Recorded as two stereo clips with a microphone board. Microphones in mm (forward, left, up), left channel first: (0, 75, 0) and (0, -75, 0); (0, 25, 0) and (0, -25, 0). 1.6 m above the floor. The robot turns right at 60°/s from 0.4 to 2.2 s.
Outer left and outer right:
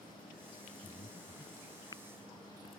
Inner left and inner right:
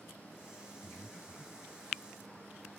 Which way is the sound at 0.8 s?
65° left (ahead or behind).